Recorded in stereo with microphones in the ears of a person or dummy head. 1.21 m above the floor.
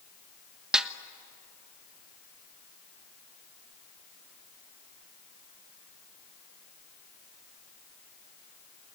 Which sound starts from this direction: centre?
A snare drum, at 0.7 s.